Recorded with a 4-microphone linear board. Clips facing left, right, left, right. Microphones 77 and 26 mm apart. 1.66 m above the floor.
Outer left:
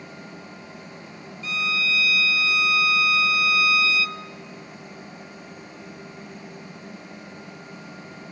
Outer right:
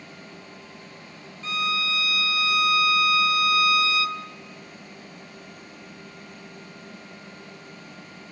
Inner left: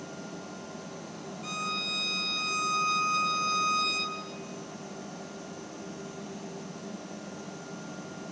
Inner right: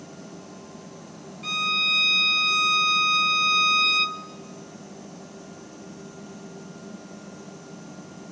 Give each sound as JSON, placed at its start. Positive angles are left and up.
{"t": 1.4, "sound": "a violin", "side_deg": -40, "distance_m": 0.8}